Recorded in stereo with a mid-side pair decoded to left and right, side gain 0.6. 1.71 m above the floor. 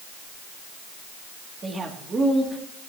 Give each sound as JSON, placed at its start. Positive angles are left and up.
{"t": 1.6, "sound": "a man speaking", "azimuth_deg": -30, "distance_m": 2.5}